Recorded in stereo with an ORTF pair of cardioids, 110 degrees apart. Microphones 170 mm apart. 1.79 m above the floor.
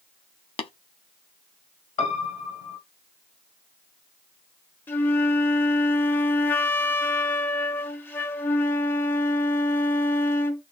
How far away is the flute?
About 0.6 m.